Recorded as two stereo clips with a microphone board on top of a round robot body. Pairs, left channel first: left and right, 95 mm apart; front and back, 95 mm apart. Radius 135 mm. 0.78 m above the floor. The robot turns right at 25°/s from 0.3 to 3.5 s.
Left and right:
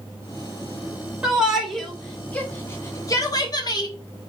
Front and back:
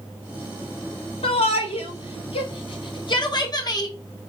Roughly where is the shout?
Ahead.